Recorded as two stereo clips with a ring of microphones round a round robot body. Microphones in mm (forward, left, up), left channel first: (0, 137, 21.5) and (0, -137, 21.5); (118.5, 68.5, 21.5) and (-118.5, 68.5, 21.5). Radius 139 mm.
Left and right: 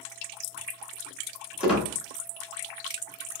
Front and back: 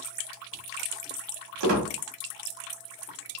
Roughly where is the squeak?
Behind.